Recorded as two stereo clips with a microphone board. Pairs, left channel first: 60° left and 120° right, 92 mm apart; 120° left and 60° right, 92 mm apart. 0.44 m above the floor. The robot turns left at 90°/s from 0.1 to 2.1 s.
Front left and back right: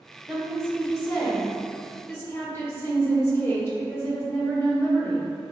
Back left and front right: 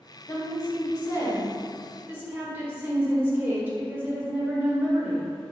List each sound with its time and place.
0.3 s a woman speaking: 170° left, 1.1 m; by 5.3 s 5° left, 1.1 m